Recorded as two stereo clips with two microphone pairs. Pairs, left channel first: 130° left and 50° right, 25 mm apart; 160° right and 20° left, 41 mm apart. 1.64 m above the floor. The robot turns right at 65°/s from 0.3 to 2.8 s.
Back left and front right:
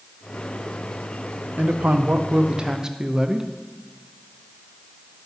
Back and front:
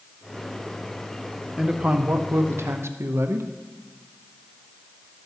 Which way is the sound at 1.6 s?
65° right.